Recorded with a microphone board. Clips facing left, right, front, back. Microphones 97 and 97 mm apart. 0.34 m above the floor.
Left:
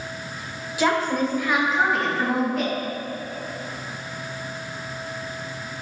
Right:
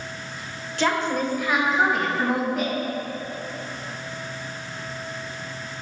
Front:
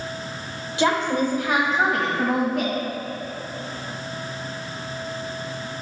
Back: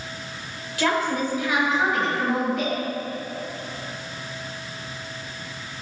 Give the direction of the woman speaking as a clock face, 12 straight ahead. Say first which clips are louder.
Left 2 dB, front 2 dB; 11 o'clock.